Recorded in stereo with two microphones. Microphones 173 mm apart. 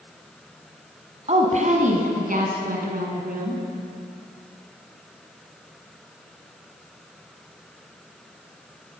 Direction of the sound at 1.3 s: 40° right (ahead or behind).